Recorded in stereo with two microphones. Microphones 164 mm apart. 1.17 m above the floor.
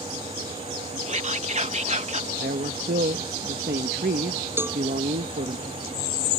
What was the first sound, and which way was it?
Whispering, 45° right (ahead or behind).